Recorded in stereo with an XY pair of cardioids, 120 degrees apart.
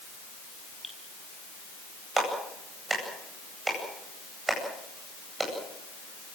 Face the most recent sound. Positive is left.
turn(degrees=-15)